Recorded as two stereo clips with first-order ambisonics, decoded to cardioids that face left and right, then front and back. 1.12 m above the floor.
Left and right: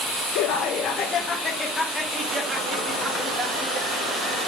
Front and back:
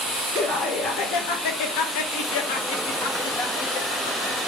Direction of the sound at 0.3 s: 65° left.